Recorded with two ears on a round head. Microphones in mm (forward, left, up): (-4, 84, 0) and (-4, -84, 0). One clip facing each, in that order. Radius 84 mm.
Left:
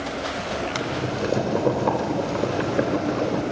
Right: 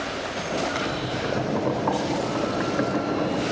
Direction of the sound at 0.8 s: 45° left (ahead or behind).